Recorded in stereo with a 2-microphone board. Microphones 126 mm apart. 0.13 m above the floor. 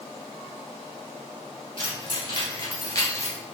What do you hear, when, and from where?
1.8 s keys jangling: 45° left (ahead or behind), 2.0 m; by 3.4 s 25° left (ahead or behind), 1.6 m